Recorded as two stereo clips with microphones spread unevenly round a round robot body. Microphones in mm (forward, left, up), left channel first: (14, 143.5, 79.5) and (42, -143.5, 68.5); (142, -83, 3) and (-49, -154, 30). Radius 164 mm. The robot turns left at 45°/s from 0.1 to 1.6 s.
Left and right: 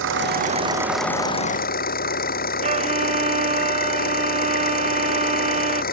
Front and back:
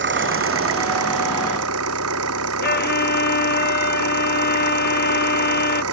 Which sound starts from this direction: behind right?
An engine running, at 0.0 s.